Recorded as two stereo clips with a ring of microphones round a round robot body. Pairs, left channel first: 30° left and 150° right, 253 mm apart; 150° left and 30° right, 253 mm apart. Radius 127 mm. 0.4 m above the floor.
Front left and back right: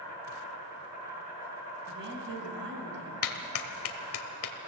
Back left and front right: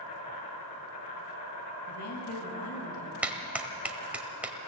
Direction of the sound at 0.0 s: 135° left.